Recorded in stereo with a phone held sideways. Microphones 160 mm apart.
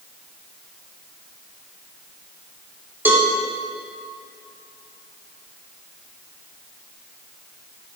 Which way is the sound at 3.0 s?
10° right (ahead or behind).